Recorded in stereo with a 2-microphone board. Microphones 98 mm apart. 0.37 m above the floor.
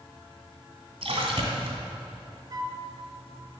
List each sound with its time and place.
1.0 s a splash: 75° right (ahead or behind), 1.8 m
2.5 s a flute: 40° right (ahead or behind), 0.9 m